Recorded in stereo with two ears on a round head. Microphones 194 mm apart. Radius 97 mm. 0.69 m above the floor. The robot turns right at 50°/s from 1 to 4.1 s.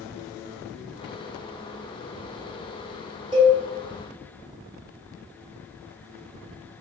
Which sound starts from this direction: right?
A cowbell, at 3.3 s.